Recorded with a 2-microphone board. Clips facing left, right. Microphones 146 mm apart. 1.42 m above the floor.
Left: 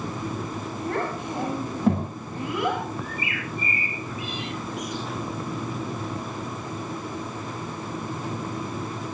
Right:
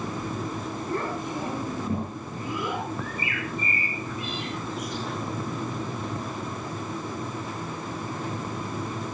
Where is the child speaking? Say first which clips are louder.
Left 2 dB; 85° left, 7.5 m.